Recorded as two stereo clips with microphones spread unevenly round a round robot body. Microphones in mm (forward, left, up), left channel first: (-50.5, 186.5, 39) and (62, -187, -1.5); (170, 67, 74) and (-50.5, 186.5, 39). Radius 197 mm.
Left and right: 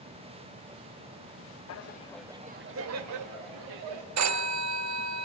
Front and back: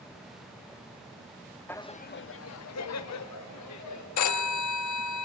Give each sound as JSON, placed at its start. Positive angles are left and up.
{"t": 1.7, "sound": "laughter", "azimuth_deg": 60, "distance_m": 0.7}
{"t": 4.2, "sound": "a phone ringing", "azimuth_deg": -25, "distance_m": 0.9}